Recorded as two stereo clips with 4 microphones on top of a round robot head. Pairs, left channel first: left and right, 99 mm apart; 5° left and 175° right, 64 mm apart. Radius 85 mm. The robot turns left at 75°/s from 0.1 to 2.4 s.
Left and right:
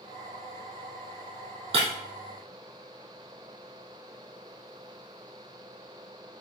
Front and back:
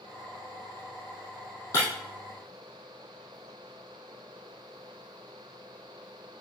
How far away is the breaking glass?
About 2.5 m.